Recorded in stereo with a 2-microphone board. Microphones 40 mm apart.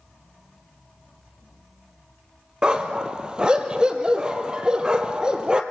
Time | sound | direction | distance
2.6 | a dog barking | 25° right (ahead or behind) | 1.6 m